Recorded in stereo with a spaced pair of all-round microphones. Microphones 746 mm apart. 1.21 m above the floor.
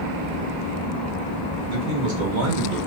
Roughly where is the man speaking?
Right.